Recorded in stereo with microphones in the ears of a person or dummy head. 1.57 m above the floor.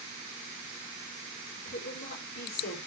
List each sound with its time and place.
1.6 s a woman speaking: 50° left (ahead or behind), 5 m